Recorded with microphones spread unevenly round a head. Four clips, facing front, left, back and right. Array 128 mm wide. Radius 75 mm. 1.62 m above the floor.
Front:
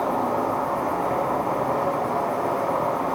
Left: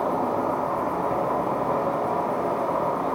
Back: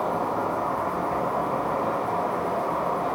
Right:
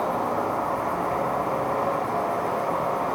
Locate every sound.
0.0 s an insect: 55° left, 1.0 m